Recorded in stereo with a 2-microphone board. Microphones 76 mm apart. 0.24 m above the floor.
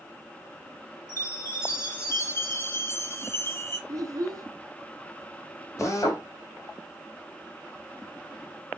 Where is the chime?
35° left (ahead or behind), 3.5 m.